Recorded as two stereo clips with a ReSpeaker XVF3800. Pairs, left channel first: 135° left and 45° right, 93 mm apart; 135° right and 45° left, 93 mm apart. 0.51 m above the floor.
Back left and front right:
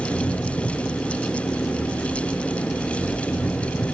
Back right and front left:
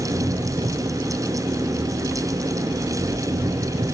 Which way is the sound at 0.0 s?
55° left.